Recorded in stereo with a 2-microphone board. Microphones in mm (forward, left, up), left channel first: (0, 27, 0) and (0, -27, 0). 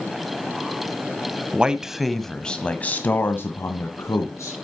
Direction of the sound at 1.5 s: 20° right (ahead or behind).